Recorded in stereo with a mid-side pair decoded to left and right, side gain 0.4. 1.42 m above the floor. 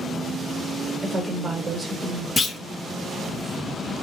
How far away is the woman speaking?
About 1.4 m.